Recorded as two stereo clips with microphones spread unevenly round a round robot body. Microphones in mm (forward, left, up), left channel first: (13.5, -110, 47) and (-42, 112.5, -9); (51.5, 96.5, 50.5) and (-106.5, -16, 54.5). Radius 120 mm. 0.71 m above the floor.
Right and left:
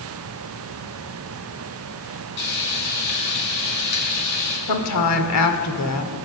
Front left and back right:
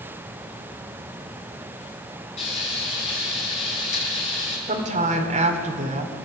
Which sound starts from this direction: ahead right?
Frying, at 2.4 s.